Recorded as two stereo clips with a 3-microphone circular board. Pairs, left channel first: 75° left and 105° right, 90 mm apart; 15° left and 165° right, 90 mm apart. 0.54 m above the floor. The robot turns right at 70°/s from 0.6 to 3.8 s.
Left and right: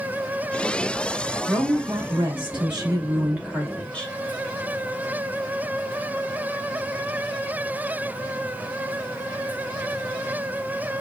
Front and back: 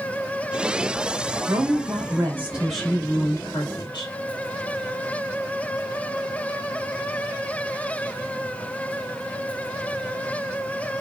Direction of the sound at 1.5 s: 160° right.